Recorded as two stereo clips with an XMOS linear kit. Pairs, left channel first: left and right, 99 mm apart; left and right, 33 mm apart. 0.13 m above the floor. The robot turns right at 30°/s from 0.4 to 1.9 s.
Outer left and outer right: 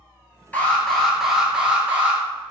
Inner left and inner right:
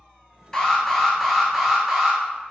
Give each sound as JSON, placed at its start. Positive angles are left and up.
{"t": 0.5, "sound": "an alarm", "azimuth_deg": 160, "distance_m": 2.0}